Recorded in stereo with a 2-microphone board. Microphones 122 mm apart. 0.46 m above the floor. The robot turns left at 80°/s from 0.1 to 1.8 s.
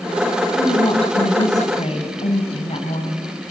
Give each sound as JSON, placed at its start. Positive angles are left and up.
{"t": 0.6, "sound": "a woman speaking", "azimuth_deg": 160, "distance_m": 4.0}